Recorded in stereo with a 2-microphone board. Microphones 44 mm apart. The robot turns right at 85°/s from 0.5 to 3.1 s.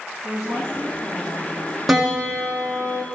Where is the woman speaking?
110° right, 6.5 m; by 1.8 s 5° right, 6.5 m.